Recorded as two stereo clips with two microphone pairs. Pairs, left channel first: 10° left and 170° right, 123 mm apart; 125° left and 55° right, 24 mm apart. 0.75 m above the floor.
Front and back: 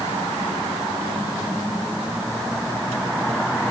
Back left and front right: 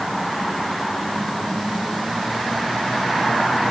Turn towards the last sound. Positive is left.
No sound to turn to.